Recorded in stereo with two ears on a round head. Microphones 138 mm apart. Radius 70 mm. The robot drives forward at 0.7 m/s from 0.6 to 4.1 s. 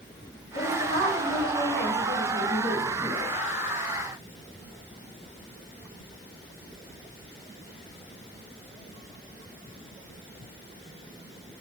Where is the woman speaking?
65° right (ahead or behind), 4 m; by 3.2 s 50° right (ahead or behind), 4.5 m.